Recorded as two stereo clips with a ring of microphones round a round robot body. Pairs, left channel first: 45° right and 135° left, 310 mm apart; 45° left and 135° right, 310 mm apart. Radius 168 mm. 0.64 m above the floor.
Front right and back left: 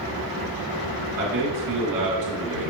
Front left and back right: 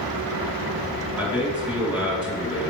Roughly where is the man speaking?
Behind left.